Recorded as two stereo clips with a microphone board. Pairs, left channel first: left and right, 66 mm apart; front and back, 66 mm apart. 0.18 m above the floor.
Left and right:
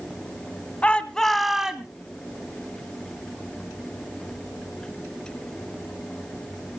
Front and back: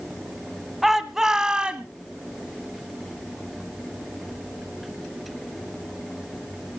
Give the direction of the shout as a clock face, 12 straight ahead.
9 o'clock.